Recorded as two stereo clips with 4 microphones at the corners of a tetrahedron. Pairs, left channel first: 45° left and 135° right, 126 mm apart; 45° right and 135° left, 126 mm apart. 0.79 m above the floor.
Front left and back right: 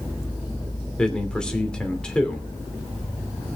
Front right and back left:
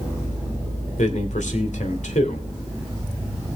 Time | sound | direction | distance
1.0 | a man speaking | 40° right | 2.5 m